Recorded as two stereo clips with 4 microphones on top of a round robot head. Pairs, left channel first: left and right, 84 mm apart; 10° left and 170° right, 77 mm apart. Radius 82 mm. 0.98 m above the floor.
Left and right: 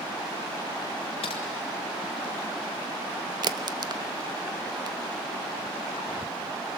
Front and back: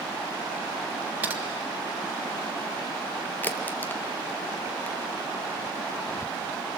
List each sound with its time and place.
1.2 s typing on a keyboard: 125° left, 1.3 m
3.4 s a crack: 55° right, 0.8 m